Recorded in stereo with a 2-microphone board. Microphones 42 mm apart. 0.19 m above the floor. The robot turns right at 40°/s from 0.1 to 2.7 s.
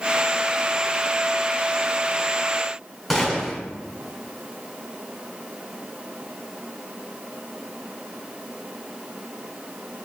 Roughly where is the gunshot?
Centre.